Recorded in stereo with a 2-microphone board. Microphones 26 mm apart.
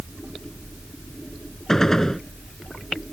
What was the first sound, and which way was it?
A gunshot, 20° left (ahead or behind).